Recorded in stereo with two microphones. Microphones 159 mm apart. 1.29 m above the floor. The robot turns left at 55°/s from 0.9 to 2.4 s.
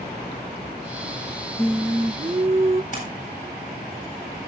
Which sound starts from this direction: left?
A splash, at 2.9 s.